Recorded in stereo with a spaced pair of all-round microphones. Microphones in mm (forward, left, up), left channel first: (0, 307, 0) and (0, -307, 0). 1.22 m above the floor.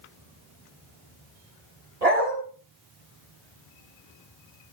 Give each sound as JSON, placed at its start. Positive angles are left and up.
{"t": 2.0, "sound": "a dog barking", "side_deg": -80, "distance_m": 3.5}